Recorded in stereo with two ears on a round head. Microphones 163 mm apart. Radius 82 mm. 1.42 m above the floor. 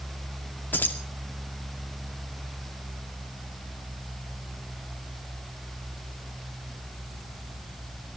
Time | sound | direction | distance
0.7 | keys jangling | 10° left (ahead or behind) | 2 m